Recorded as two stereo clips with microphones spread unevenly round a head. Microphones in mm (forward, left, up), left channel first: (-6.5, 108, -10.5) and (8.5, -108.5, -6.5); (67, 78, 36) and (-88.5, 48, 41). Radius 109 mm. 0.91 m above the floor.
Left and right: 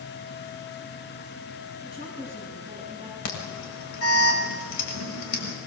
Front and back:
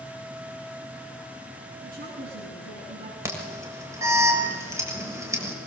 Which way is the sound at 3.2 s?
120° left.